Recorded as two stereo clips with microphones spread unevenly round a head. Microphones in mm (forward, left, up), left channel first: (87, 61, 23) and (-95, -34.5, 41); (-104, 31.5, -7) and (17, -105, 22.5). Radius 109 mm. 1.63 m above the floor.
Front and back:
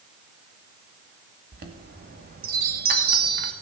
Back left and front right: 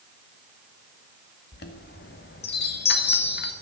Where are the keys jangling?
I don't hear keys jangling.